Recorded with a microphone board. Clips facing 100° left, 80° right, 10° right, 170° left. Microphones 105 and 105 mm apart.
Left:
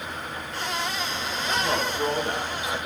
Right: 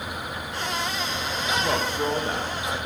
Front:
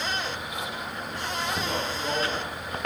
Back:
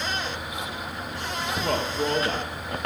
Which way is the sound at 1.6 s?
150° right.